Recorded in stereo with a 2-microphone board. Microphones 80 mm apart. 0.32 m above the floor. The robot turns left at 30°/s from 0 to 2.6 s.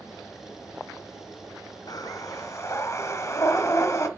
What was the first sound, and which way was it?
Breathing, 50° left (ahead or behind).